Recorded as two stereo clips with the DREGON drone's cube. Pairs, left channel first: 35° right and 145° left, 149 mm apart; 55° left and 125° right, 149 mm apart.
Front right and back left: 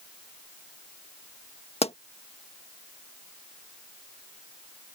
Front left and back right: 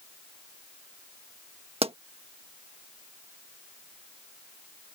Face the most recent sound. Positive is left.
turn(degrees=-80)